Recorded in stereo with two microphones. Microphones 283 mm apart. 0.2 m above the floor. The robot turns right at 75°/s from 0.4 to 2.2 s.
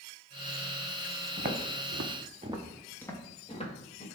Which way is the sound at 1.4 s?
30° right (ahead or behind).